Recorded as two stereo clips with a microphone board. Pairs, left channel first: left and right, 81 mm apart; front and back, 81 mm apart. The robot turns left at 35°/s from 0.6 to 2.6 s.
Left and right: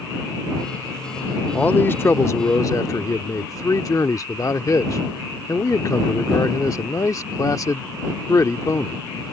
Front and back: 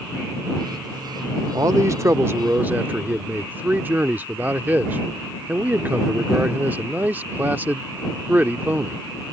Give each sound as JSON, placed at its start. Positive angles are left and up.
{"t": 1.5, "sound": "a man speaking", "azimuth_deg": 155}